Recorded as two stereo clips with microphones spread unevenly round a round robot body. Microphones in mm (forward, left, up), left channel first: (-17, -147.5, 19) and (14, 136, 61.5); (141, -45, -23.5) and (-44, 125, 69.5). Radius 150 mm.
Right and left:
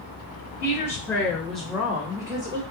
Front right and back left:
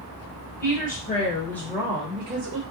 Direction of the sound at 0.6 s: 20° right.